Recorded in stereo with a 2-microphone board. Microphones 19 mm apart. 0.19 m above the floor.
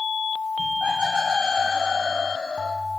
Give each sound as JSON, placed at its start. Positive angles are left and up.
{"t": 0.6, "sound": "laughter", "side_deg": -85, "distance_m": 8.0}